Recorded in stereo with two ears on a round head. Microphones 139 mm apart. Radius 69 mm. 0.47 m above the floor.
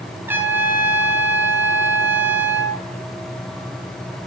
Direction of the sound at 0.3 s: 15° right (ahead or behind).